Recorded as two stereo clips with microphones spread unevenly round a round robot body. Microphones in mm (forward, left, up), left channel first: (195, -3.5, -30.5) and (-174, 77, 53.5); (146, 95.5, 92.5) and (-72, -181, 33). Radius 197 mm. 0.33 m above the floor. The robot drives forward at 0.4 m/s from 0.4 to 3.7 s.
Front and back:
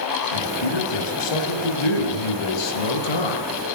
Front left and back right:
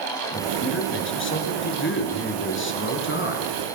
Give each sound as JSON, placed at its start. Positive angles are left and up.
{"t": 0.3, "sound": "a man speaking", "azimuth_deg": -5, "distance_m": 6.0}